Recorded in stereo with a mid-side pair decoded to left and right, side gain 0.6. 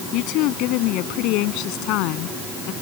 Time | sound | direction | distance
0.1 | a woman speaking | 70° left | ?